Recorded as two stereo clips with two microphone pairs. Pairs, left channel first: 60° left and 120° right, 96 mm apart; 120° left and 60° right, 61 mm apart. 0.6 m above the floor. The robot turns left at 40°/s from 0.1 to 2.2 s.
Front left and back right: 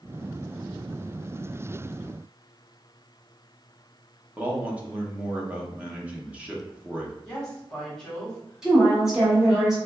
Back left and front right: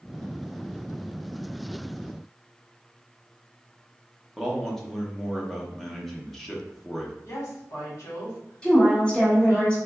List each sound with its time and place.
4.4 s a man speaking: 165° right, 0.7 m
7.2 s a woman speaking: 145° left, 1.5 m
8.6 s a woman speaking: 165° left, 1.0 m